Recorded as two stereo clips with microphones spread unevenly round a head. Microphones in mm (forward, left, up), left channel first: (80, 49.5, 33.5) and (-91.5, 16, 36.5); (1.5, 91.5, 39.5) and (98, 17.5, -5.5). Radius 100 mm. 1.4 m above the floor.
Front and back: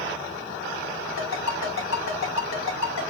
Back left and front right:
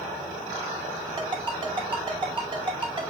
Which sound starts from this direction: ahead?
A ringtone, at 1.2 s.